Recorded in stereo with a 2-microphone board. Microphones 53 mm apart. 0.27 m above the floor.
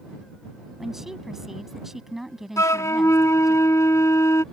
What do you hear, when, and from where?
0.8 s a woman speaking: 5° right (ahead or behind)
2.6 s a flute: 75° left (ahead or behind)